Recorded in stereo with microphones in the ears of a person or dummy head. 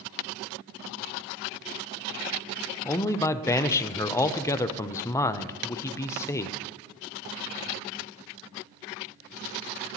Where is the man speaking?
20° left (ahead or behind), 0.6 m.